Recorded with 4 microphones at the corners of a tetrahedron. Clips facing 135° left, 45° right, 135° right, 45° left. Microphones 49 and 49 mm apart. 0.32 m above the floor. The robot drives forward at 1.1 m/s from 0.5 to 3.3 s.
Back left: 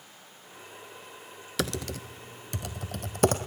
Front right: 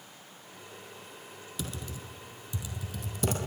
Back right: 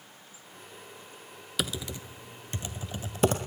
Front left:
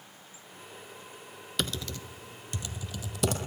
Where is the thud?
No thud in this recording.